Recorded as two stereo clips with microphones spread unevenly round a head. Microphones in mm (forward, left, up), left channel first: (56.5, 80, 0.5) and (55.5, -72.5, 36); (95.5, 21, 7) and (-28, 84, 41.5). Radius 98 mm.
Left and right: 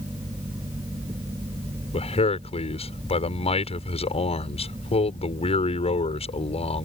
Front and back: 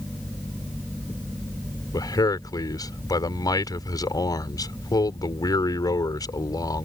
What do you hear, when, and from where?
1.9 s a man speaking: 40° left